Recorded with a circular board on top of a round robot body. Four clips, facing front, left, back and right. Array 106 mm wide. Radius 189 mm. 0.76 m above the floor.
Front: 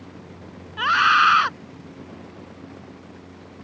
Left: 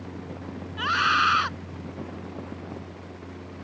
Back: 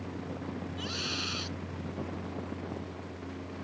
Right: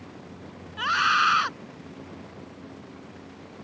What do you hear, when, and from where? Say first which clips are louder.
0.8 s a scream: even, front 21 dB; 5° right